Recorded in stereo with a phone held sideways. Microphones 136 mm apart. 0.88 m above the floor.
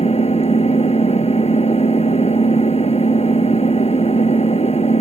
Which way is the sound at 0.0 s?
50° left (ahead or behind).